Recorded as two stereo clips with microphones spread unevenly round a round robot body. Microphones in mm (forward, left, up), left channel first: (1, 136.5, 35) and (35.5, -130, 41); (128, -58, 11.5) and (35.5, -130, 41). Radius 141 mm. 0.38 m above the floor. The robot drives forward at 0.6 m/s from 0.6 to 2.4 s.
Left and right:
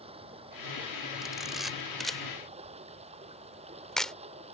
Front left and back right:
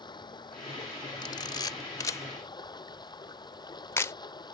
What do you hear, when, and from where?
0.0 s running water: 15° right
1.2 s a camera shutter: 5° left; by 4.1 s 10° left